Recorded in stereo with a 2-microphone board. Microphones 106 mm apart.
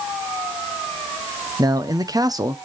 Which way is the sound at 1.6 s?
35° right (ahead or behind).